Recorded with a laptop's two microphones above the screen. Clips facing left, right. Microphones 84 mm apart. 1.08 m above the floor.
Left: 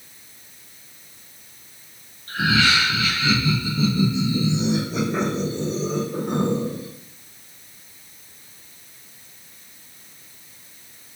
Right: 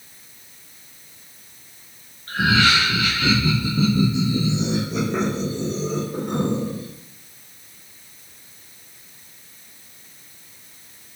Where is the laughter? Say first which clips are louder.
Right 2 dB; 55° right (ahead or behind), 1.1 m; by 6.9 s centre (ahead or behind), 1.9 m.